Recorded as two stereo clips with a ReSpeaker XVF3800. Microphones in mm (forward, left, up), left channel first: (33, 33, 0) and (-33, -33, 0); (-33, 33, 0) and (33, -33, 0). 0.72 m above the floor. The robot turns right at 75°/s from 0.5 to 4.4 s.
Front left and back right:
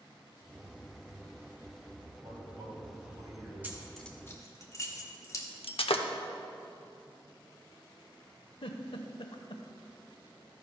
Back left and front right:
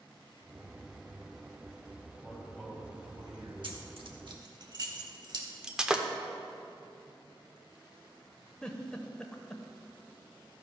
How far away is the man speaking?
About 3 m.